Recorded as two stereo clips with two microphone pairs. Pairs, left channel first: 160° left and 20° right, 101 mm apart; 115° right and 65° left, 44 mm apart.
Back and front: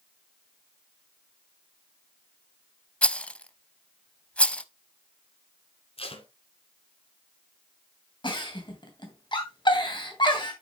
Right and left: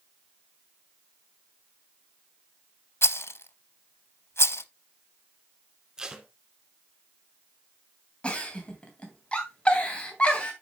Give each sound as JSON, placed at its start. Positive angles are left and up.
{"t": 3.0, "sound": "a rattle", "azimuth_deg": -125, "distance_m": 0.5}
{"t": 6.0, "sound": "tape being pulled", "azimuth_deg": 140, "distance_m": 1.5}
{"t": 8.2, "sound": "a giggle", "azimuth_deg": -175, "distance_m": 2.5}